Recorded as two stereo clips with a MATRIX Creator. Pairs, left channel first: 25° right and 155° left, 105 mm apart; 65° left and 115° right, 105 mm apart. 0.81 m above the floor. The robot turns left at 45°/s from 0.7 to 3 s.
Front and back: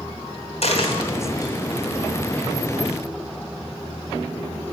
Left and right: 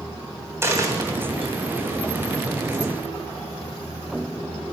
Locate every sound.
0.6 s a dropped coin: 45° right, 2.5 m; by 1.5 s 85° right, 2.5 m